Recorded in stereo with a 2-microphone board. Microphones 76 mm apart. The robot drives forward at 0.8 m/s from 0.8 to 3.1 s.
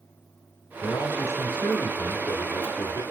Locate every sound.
0.8 s a man speaking: 50° left (ahead or behind), 2.5 m; by 3.0 s 55° left (ahead or behind), 2 m